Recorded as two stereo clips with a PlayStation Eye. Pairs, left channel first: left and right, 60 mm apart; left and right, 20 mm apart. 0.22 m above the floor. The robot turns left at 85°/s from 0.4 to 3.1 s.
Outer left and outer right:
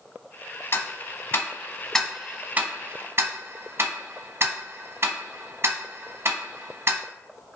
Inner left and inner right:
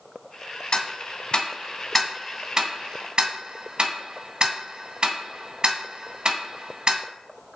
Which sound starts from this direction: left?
Ticking, at 0.7 s.